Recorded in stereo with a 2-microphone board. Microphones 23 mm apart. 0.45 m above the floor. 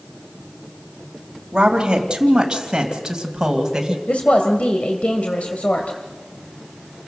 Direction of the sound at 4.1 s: 65° left (ahead or behind).